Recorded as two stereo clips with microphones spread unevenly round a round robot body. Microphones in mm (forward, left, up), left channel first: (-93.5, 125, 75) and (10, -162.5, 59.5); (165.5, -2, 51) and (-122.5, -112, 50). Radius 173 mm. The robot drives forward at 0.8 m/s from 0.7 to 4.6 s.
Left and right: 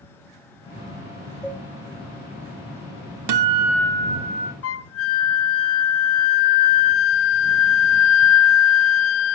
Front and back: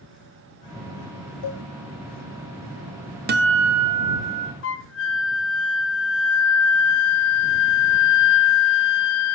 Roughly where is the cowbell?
Ahead.